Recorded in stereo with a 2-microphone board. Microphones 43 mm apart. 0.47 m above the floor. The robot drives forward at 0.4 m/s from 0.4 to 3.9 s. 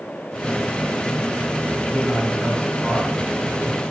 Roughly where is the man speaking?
Left.